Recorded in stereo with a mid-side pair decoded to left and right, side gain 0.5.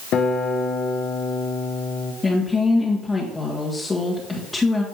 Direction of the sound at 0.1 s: 70° left.